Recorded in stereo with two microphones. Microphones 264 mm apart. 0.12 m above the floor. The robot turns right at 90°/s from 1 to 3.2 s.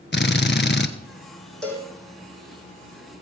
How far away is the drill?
About 0.9 m.